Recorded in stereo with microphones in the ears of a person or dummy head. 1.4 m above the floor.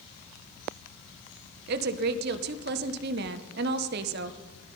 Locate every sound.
1.7 s a woman speaking: 65° right (ahead or behind), 1.1 m